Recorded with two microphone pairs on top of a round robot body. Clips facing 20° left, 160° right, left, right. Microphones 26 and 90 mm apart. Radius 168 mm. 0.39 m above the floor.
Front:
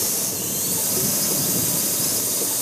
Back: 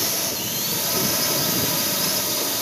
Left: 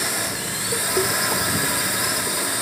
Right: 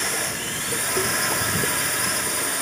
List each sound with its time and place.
0.0 s a drone: 165° left; by 2.6 s 170° left